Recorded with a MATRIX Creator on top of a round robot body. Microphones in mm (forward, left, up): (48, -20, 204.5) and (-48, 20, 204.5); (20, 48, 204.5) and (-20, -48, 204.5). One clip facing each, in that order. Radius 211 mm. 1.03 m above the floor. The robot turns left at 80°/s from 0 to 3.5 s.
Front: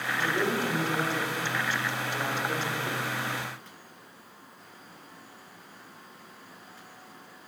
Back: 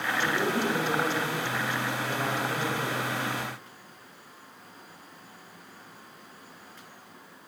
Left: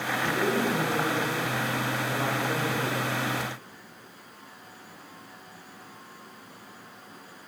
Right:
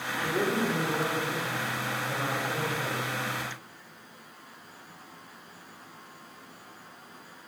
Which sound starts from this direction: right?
A man speaking, at 0.2 s.